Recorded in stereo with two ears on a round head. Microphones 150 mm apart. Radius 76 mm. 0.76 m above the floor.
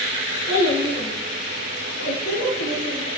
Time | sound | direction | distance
0.5 | a child speaking | 65° left (ahead or behind) | 5 m